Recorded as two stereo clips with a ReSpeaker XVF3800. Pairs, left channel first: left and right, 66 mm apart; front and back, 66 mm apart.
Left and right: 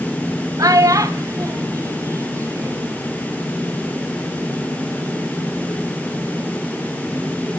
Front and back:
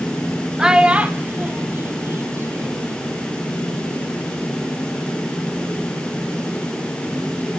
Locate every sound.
0.6 s a child speaking: 100° right, 1.2 m; by 3.0 s 130° right, 2.5 m